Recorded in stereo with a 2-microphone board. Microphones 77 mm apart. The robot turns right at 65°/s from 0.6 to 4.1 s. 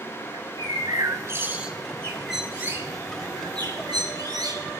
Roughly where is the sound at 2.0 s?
Behind.